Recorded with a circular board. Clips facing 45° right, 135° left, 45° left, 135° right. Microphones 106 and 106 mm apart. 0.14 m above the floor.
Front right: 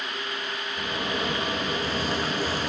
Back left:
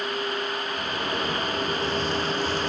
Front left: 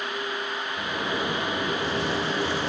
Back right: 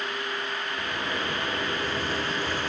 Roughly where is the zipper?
Ahead left.